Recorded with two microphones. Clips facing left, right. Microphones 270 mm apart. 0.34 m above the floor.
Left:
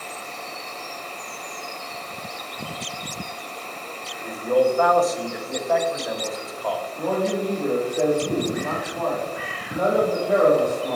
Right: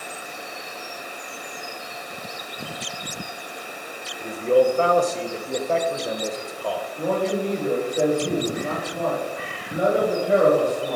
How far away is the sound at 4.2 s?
About 1.0 m.